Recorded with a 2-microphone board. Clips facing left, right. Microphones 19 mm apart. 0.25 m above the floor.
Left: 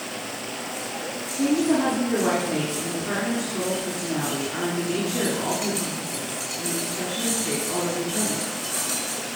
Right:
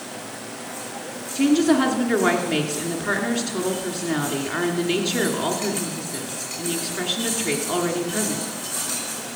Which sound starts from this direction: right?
A woman speaking, at 1.4 s.